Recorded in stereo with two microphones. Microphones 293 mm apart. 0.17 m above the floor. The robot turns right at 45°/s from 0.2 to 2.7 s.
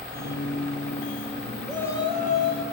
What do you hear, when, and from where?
1.7 s a shout: straight ahead, 5 m; by 2.6 s 45° left, 5 m